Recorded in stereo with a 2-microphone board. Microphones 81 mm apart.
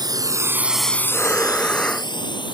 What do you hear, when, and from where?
0.0 s a drone: 55° right (ahead or behind); by 2.5 s 70° left (ahead or behind)
1.1 s breathing: 15° left (ahead or behind)